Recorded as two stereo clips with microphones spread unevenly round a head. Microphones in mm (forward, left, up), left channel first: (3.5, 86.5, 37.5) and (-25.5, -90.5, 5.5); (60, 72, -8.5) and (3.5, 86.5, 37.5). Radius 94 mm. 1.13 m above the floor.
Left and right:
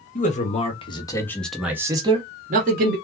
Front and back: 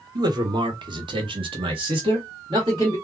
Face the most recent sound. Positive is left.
turn(degrees=-125)